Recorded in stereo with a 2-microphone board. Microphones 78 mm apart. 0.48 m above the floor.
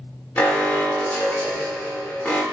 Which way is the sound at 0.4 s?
25° left (ahead or behind).